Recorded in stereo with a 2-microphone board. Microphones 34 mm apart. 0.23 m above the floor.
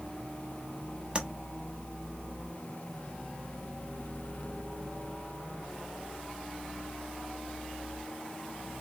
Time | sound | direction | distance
1.1 | tapping | 30° right (ahead or behind) | 1.1 m